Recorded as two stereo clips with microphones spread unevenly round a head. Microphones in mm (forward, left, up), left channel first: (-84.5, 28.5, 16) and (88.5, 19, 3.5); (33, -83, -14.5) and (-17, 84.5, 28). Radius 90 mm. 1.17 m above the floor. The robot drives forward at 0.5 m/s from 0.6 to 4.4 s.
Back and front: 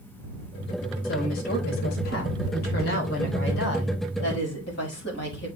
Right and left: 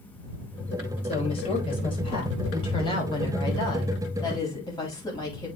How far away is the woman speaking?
About 5 m.